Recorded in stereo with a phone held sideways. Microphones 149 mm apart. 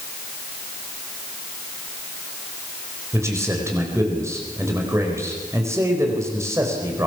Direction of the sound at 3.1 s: 20° right (ahead or behind).